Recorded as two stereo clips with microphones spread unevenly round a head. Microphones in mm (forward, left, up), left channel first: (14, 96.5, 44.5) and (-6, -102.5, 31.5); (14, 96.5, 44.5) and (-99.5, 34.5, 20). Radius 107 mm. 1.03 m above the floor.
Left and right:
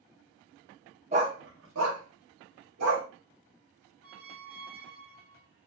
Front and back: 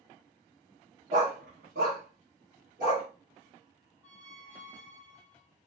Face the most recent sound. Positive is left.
turn(degrees=-70)